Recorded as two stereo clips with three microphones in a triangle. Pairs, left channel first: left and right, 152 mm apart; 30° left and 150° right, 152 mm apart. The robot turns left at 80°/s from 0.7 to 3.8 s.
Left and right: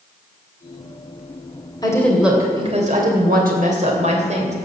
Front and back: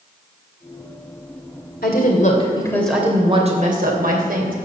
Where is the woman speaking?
30° left, 3 m; by 4.5 s 130° right, 3 m.